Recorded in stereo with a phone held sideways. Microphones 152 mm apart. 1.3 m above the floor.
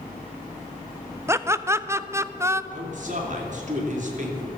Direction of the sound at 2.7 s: 55° right (ahead or behind).